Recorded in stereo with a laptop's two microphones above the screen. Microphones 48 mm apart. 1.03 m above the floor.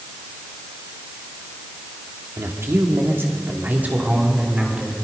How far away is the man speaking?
About 2 m.